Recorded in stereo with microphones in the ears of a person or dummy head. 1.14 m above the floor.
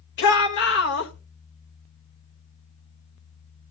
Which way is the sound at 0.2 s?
55° left (ahead or behind).